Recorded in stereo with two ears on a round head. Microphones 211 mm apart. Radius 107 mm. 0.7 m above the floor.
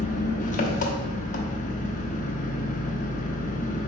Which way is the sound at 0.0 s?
30° left (ahead or behind).